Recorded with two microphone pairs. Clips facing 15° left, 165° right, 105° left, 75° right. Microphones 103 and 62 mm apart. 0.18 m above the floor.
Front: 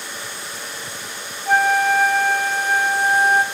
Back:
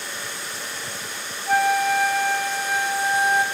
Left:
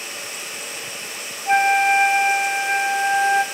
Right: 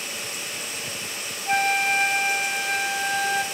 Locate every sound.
1.5 s a flute: 45° left, 1.2 m